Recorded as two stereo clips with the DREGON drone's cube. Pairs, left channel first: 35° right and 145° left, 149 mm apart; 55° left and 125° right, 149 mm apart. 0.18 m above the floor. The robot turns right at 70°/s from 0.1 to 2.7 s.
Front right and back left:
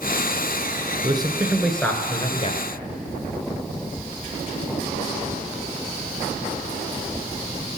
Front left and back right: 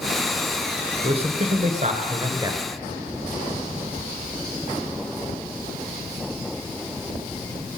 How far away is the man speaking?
About 1.5 m.